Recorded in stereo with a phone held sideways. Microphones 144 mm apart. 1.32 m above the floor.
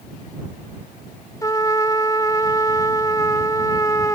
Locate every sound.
1.4 s a trumpet: 20° left (ahead or behind)